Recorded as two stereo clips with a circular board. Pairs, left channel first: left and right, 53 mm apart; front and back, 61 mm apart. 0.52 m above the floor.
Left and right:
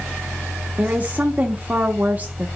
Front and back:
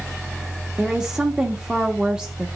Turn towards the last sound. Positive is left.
turn(degrees=-110)